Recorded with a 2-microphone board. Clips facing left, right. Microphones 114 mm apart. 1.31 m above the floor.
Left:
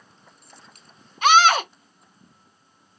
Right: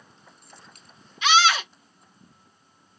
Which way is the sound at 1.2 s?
45° left (ahead or behind).